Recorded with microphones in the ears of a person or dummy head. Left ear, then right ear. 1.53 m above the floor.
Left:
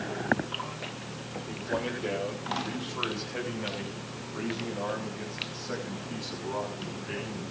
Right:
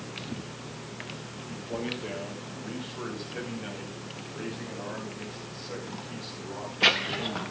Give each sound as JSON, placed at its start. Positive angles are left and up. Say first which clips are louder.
{"t": 1.5, "sound": "a man speaking", "louder": "left 2 dB", "side_deg": 60, "distance_m": 7.0}